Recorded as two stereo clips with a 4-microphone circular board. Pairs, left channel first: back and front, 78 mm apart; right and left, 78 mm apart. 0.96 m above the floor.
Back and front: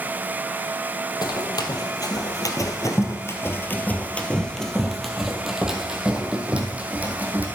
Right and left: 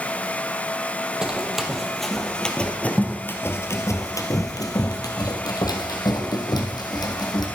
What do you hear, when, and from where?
1.2 s running footsteps: 170° left, 1.8 m; by 7.5 s 70° right, 2.5 m